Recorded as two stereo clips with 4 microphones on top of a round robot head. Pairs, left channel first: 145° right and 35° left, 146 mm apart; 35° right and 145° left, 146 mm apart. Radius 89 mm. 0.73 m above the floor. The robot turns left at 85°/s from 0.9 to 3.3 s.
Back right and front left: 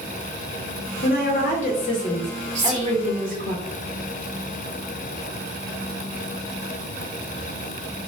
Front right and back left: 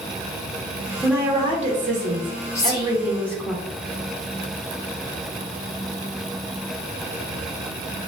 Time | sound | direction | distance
1.0 | a woman speaking | 125° right | 0.7 m
2.5 | whispering | 35° left | 0.8 m